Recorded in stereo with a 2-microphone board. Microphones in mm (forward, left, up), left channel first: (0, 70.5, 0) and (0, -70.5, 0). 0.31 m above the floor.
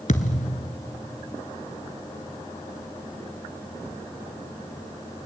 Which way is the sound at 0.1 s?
60° left (ahead or behind).